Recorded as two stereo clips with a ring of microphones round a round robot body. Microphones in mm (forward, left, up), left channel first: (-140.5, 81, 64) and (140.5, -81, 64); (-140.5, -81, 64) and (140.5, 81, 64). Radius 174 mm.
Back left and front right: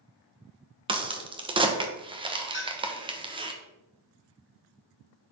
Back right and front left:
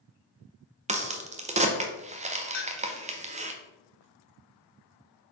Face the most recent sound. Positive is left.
turn(degrees=-155)